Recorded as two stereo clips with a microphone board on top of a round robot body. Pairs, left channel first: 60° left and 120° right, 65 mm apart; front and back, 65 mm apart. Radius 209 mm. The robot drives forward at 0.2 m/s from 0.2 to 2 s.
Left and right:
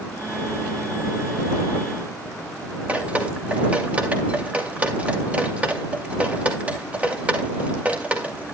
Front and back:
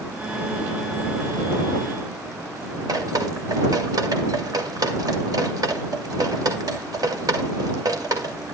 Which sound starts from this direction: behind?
Dripping, at 2.9 s.